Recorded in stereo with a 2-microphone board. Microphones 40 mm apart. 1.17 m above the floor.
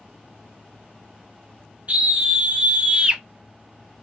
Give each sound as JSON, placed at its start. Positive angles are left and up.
{"t": 1.9, "sound": "a scream", "side_deg": -30, "distance_m": 1.3}